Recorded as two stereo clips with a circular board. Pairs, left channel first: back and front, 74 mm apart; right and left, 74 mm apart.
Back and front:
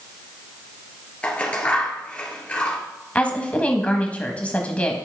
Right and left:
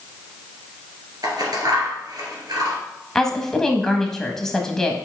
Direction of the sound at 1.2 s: 110° left.